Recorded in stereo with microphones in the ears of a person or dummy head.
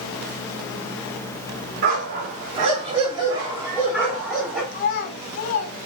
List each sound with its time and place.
1.8 s a dog barking: 45° right (ahead or behind), 1.9 m; by 4.6 s 5° left (ahead or behind), 2 m
4.7 s a child speaking: 55° left (ahead or behind), 0.9 m